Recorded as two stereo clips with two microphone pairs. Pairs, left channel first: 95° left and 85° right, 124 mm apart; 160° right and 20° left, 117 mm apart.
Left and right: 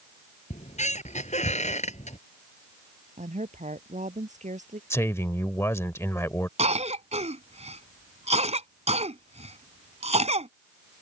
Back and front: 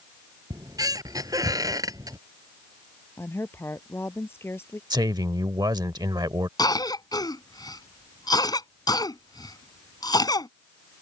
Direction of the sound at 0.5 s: 80° left.